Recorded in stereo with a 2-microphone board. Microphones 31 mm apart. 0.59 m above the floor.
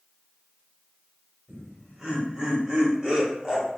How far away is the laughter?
About 1.8 m.